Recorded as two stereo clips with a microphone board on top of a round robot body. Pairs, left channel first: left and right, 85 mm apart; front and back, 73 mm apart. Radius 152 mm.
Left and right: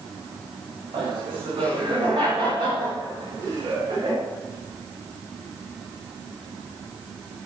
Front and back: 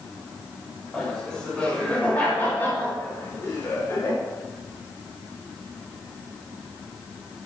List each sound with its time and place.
0.9 s laughter: 80° right, 6 m; by 4.2 s 50° right, 6 m